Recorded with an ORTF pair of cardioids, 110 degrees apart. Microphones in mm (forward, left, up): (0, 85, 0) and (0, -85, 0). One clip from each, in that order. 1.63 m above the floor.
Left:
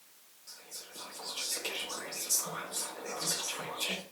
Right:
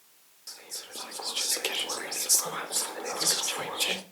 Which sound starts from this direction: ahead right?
Whispering, at 0.5 s.